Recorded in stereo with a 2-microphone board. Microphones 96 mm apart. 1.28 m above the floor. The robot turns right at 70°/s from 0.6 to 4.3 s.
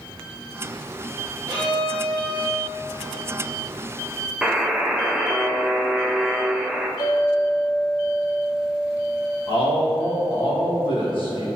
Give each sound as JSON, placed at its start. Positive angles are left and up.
{"t": 1.5, "sound": "a violin", "azimuth_deg": -145, "distance_m": 2.0}
{"t": 4.4, "sound": "a buzzer", "side_deg": -10, "distance_m": 0.5}
{"t": 7.0, "sound": "a clink", "side_deg": 45, "distance_m": 1.5}
{"t": 9.5, "sound": "a man speaking", "side_deg": 65, "distance_m": 1.7}